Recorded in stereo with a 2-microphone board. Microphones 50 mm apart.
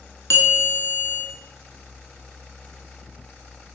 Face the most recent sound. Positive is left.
turn(degrees=60)  # may be behind; listen again after turning